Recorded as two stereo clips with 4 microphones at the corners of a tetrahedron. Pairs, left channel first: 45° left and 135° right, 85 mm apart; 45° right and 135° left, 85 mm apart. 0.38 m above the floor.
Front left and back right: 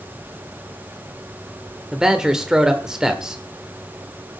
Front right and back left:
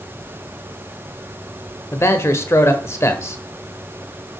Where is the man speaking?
55° right, 1.1 m.